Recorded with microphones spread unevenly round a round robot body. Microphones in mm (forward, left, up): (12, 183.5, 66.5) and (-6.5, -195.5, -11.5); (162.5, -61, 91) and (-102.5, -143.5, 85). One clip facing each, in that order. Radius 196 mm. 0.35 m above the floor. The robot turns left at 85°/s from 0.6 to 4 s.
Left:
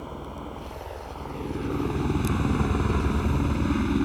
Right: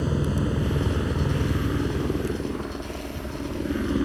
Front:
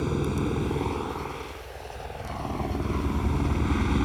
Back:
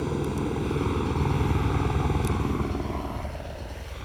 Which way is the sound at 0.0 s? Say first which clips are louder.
Right 12 dB, front 1 dB; 70° right.